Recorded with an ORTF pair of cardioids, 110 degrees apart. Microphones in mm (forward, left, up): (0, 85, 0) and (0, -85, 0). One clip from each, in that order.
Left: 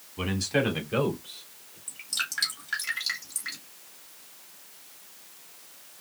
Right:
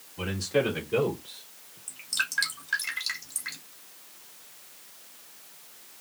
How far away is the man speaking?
About 3 m.